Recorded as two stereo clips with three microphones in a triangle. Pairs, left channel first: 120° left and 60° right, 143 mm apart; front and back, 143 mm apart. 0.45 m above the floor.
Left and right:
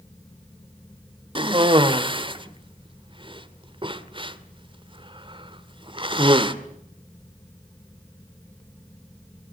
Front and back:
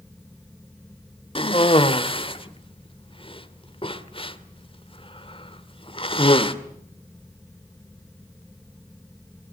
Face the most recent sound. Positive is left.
turn(degrees=-25)